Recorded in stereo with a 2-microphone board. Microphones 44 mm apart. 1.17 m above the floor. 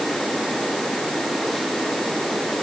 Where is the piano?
No piano in this recording.